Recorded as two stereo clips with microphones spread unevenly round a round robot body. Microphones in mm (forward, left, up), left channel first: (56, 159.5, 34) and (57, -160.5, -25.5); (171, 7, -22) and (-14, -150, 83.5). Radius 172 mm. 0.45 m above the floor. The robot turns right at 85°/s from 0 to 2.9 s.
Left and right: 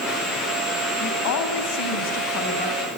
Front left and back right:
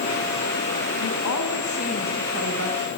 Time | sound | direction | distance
1.0 | a woman speaking | 25° left | 4 m